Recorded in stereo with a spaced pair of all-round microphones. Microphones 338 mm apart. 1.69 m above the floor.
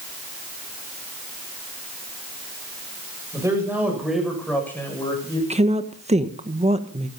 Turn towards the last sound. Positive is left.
turn(degrees=-20)  # may be behind; listen again after turning